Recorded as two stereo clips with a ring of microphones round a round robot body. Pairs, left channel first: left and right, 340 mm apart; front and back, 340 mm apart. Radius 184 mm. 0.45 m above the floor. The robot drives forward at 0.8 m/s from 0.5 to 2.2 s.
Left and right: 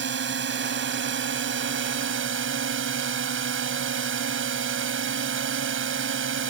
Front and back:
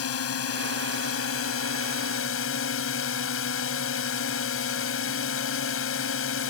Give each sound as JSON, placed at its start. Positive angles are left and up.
{"t": 0.0, "sound": "a drone", "azimuth_deg": -40}